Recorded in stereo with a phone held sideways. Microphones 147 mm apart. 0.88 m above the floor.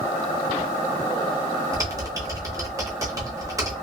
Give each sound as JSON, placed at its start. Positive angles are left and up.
{"t": 1.7, "sound": "typing on a keyboard", "side_deg": -20, "distance_m": 1.1}